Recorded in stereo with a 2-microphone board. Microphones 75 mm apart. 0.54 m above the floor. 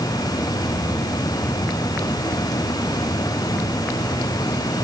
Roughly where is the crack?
No crack in this recording.